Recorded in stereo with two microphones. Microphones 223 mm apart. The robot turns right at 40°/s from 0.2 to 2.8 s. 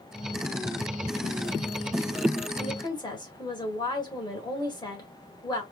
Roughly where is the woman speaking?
Centre.